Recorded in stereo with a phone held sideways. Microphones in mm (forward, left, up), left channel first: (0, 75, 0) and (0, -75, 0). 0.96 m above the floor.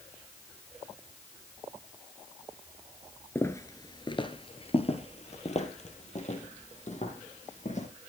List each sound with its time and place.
3.4 s footsteps: 15° left (ahead or behind), 0.9 m; by 7.9 s 55° left (ahead or behind), 3 m